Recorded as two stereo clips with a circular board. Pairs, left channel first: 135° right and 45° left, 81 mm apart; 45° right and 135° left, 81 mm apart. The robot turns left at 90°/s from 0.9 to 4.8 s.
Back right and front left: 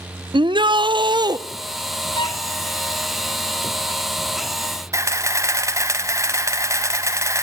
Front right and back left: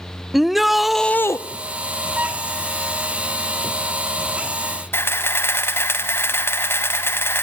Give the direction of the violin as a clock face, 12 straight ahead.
5 o'clock.